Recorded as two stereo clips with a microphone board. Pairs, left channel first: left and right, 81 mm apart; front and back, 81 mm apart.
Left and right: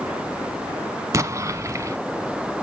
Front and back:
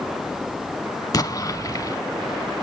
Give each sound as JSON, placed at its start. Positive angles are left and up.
{"t": 1.1, "sound": "an explosion", "azimuth_deg": -40, "distance_m": 0.5}